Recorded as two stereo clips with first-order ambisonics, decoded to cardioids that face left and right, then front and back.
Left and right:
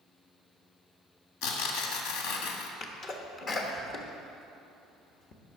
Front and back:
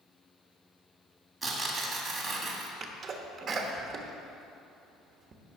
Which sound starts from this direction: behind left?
A sneeze, at 2.8 s.